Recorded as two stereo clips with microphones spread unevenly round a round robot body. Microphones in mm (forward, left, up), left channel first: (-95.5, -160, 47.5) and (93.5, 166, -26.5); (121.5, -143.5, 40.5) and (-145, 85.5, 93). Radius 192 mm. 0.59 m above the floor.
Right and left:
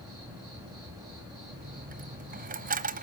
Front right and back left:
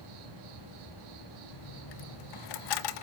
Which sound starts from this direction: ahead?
A dropped coin, at 1.5 s.